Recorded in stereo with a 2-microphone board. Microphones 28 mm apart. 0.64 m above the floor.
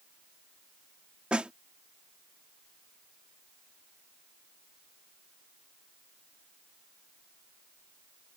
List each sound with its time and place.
1.3 s a snare drum: 40° right (ahead or behind)